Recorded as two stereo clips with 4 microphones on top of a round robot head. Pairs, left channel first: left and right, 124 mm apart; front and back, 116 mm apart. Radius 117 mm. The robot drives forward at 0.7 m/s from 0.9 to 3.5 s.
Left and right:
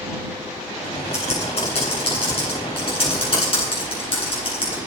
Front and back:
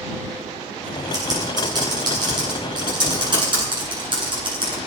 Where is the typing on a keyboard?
125° left, 9.5 m; by 4.8 s 130° left, 10.5 m.